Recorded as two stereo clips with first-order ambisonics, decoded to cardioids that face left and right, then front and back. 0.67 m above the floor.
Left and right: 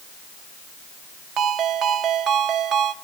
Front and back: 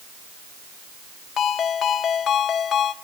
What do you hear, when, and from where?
1.4 s a ringtone: 45° right, 0.8 m